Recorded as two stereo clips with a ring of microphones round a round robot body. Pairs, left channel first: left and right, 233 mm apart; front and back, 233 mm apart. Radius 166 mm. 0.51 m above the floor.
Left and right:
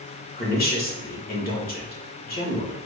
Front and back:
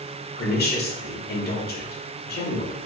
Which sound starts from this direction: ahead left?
A woman speaking, at 0.4 s.